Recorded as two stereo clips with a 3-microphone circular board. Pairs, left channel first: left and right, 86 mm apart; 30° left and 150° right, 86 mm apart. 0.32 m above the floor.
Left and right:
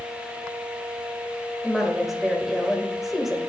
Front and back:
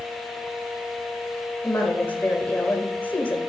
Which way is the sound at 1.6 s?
5° right.